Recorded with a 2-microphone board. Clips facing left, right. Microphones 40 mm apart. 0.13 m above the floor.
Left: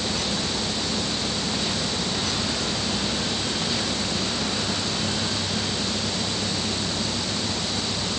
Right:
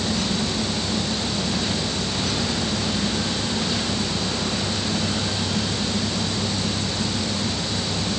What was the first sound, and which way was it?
Only background noise.